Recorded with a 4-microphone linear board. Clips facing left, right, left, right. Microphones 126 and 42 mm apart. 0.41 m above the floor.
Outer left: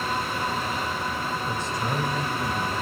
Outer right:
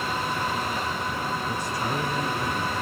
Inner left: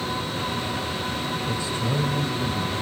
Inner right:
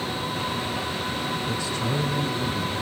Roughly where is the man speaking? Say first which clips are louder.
Even, even; left.